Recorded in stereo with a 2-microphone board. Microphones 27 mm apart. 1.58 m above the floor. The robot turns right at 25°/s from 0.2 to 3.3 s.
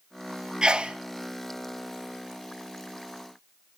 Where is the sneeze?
30° right (ahead or behind), 0.6 m; by 1.0 s 40° right (ahead or behind), 0.6 m.